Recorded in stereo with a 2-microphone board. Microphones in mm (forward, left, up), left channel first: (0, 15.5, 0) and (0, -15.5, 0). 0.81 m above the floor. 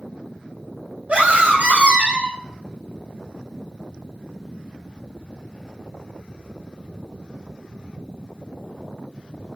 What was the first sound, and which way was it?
A scream, 50° right (ahead or behind).